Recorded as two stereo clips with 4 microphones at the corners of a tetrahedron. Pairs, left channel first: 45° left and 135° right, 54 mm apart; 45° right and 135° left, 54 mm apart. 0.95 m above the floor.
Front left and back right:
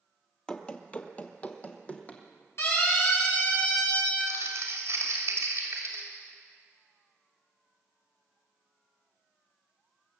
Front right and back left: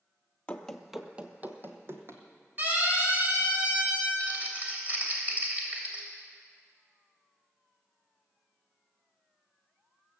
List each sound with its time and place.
0.5 s running footsteps: 5° right, 1.0 m; by 2.2 s 105° left, 2 m
2.6 s a siren: 80° left, 7 m; by 4.1 s 70° left, 8.5 m
4.2 s crumpling: 165° right, 2.5 m